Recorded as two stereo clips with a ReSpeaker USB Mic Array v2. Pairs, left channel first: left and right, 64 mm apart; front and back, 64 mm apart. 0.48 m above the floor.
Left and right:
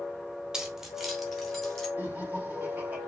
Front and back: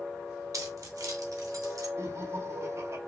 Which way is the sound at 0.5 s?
170° right.